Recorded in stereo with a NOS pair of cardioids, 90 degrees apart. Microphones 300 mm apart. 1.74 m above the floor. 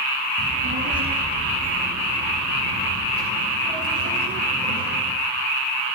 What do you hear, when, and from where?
0.4 s a child speaking: 35° right, 7.5 m; by 5.1 s 50° right, 12.5 m